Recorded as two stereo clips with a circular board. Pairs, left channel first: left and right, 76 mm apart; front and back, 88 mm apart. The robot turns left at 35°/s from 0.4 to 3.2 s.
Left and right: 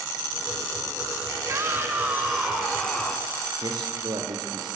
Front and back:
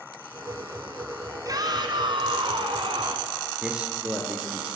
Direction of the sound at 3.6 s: 100° right.